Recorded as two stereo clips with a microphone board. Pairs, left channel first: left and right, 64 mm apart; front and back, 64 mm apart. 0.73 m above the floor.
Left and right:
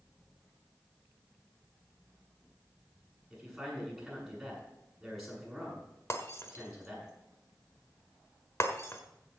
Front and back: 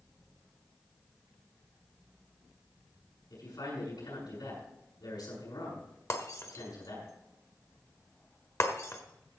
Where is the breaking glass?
45° left, 1.4 m.